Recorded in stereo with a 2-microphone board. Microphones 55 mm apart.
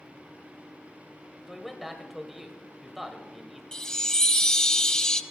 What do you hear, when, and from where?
1.5 s a man speaking: 5° right (ahead or behind), 1.5 m
3.7 s a chime: 10° left (ahead or behind), 0.5 m